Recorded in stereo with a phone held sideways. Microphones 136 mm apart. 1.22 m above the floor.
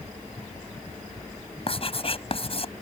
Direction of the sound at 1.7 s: 45° left (ahead or behind).